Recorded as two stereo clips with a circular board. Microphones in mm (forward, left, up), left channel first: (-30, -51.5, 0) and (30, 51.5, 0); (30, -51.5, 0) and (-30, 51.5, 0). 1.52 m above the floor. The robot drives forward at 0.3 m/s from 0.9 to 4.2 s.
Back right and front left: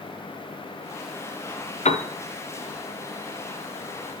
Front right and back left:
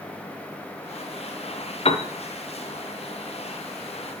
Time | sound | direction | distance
1.9 | a piano | 100° right | 0.9 m